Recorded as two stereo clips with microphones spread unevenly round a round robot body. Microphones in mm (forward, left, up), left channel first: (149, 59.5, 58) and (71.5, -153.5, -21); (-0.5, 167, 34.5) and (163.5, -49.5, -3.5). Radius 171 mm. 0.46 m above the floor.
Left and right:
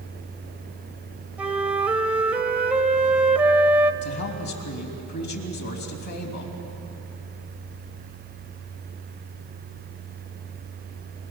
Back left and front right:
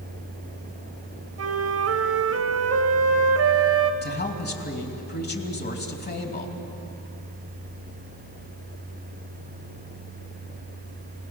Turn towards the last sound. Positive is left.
turn(degrees=70)